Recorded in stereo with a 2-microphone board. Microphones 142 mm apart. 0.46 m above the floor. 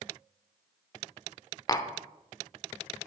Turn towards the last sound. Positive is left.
turn(degrees=25)  # may be behind; listen again after turning